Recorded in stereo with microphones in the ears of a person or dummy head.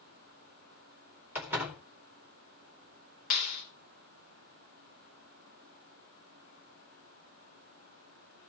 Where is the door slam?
10° right (ahead or behind), 2.5 m.